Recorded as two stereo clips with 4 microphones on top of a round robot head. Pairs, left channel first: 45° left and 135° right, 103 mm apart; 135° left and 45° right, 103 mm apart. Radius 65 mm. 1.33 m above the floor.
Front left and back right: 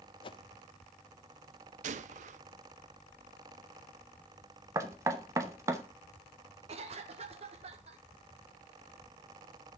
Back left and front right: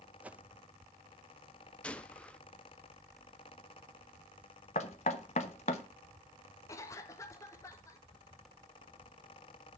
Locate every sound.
0.2 s a whoosh: 30° left, 0.5 m
1.8 s a gunshot: 145° right, 0.5 m
4.8 s knocking: 160° left, 0.8 m
6.7 s a cough: 160° right, 1.5 m